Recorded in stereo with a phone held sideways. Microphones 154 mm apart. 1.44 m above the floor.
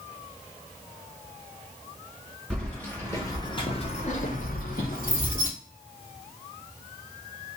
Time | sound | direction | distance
2.5 | keys jangling | 5° left (ahead or behind) | 1.2 m